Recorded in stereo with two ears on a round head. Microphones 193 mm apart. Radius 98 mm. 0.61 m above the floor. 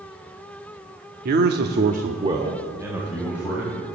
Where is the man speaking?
40° right (ahead or behind), 1.0 m; by 3.9 s 5° right (ahead or behind), 3 m.